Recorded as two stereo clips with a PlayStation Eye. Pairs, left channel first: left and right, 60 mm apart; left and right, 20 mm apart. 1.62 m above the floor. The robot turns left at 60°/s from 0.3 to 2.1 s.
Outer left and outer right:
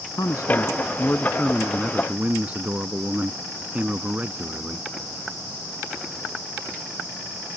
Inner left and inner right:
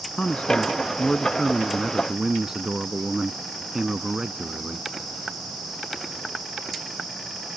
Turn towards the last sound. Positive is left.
turn(degrees=-25)